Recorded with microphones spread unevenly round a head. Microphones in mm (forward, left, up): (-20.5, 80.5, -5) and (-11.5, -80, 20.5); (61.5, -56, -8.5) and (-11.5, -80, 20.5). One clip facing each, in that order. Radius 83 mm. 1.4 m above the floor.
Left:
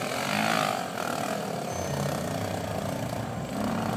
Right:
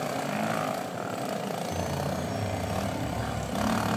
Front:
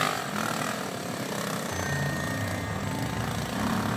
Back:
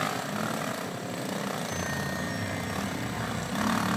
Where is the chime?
45° right, 4 m.